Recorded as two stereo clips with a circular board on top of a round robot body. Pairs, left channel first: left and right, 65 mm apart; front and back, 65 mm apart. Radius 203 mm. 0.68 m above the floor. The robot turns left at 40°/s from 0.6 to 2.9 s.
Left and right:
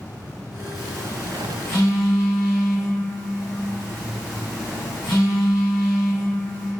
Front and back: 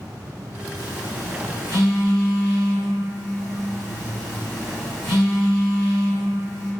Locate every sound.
0.7 s a phone buzzing: 175° left, 1.3 m; by 6.7 s 85° left, 1.3 m